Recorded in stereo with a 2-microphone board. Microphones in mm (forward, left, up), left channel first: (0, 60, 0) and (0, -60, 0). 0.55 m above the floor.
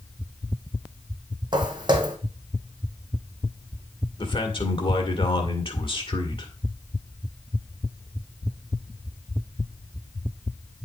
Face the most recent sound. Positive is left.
turn(degrees=45)  # may be behind; listen again after turning